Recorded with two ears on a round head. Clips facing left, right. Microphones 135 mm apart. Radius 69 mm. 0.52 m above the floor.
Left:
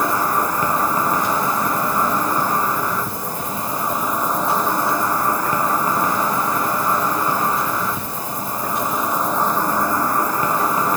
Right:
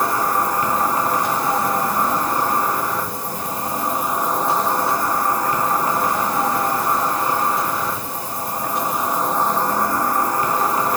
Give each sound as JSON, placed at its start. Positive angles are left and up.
{"t": 0.0, "sound": "an insect", "side_deg": 70, "distance_m": 1.0}